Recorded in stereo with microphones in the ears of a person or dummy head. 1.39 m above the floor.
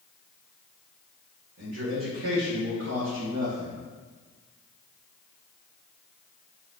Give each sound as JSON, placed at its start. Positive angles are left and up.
{"t": 1.6, "sound": "a man speaking", "side_deg": -65, "distance_m": 1.4}